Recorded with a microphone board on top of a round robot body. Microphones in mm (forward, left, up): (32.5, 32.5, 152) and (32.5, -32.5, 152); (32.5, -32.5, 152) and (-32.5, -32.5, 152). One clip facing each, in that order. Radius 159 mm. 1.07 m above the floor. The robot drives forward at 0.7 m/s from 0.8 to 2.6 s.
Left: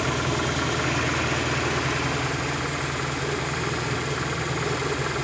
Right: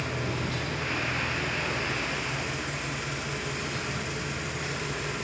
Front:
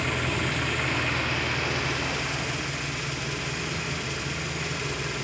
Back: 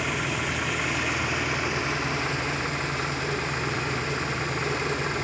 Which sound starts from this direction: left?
An engine running, at 0.0 s.